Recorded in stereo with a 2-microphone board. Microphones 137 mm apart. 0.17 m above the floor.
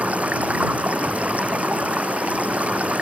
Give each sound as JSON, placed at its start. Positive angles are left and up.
{"t": 0.0, "sound": "running water", "side_deg": -10}